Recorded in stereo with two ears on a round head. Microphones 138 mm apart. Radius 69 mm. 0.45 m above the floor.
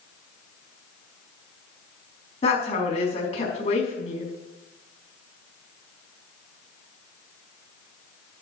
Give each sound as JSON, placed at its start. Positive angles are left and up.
{"t": 2.4, "sound": "a woman speaking", "side_deg": 40, "distance_m": 4.5}